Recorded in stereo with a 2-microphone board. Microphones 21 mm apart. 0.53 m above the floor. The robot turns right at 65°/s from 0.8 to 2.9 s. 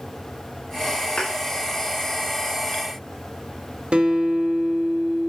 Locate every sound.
1.2 s a thud: 45° left (ahead or behind), 3.5 m; by 1.3 s 35° left (ahead or behind), 3.5 m
3.9 s a guitar: 45° right (ahead or behind), 1.1 m